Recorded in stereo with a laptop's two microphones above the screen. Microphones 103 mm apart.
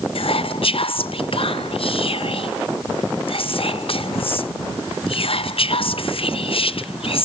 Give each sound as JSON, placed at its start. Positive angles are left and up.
{"t": 0.1, "sound": "whispering", "side_deg": 60, "distance_m": 0.6}